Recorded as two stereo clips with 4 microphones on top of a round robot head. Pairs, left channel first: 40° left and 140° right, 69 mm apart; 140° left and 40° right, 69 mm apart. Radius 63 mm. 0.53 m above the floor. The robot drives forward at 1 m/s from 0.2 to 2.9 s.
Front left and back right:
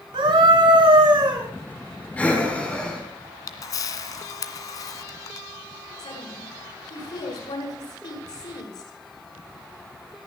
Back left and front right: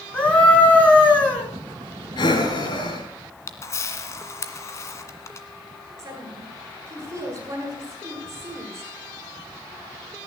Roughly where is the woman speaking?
Ahead.